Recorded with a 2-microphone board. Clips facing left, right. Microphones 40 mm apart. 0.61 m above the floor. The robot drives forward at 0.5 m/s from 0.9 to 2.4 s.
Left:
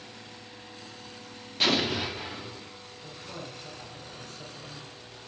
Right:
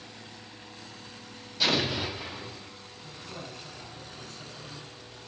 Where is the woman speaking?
75° left (ahead or behind), 2.5 m.